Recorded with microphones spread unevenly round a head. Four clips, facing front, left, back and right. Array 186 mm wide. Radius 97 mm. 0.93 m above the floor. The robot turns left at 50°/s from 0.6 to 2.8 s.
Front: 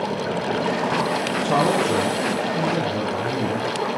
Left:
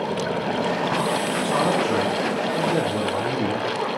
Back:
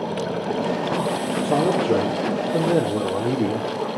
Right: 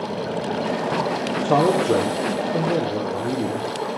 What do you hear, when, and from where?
1.3 s a man speaking: 95° right, 3 m; by 3.7 s 170° right, 3 m